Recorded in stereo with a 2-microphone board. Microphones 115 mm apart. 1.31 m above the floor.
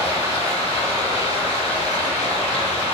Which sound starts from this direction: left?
Running water, at 0.0 s.